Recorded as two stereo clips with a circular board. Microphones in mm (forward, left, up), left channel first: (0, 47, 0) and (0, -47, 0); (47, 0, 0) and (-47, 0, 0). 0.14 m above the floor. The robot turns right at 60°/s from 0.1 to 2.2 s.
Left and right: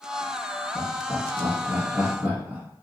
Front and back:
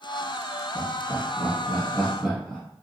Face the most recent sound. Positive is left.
turn(degrees=-80)